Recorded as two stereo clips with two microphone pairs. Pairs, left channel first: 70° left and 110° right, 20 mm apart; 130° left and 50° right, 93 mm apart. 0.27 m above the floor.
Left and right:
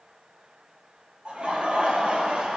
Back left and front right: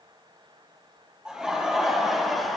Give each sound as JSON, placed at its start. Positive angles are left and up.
{"t": 1.2, "sound": "laughter", "azimuth_deg": -130, "distance_m": 7.0}